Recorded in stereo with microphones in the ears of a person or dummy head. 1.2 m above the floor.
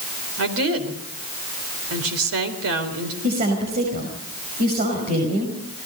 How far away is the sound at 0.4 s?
About 4 m.